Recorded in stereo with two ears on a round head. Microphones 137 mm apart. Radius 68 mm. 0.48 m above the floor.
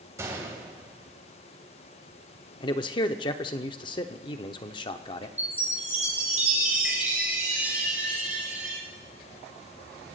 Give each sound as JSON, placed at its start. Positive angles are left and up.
{"t": 0.2, "sound": "a gunshot", "side_deg": -20, "distance_m": 3.0}
{"t": 2.6, "sound": "a man speaking", "side_deg": 30, "distance_m": 0.8}
{"t": 5.4, "sound": "a chime", "side_deg": -10, "distance_m": 5.0}